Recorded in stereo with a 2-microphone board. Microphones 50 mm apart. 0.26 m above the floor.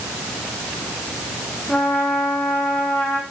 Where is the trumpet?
20° left (ahead or behind), 5.5 m.